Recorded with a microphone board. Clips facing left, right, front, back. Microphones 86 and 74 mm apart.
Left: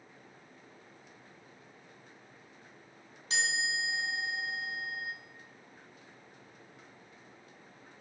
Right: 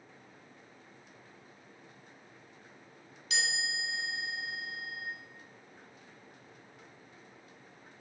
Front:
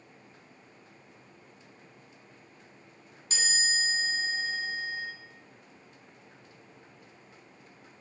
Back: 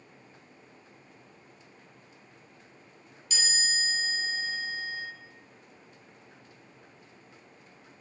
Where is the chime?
45° left, 1.3 m.